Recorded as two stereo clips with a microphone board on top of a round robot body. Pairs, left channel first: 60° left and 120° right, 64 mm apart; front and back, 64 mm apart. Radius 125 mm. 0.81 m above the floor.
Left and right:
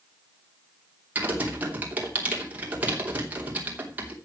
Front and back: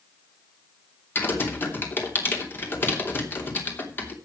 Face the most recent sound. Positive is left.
turn(degrees=-55)